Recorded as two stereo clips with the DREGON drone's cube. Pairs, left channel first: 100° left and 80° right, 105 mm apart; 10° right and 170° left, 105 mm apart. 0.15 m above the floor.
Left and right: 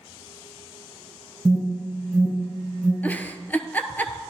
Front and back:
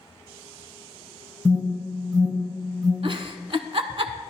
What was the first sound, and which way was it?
An alarm, 155° right.